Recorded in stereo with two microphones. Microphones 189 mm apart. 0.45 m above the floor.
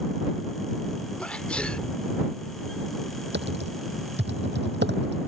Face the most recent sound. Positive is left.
turn(degrees=-65)  # may be behind; listen again after turning